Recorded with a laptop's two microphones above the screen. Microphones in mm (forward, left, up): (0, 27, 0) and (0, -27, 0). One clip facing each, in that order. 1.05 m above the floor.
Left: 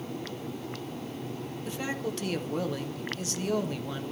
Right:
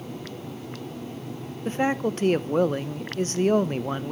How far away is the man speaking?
About 0.6 m.